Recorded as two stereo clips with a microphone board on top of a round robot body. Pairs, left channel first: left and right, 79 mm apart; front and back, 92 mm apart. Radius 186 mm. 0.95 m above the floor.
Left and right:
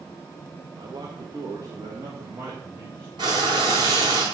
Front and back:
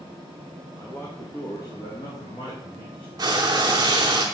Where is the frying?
125° right, 0.7 m.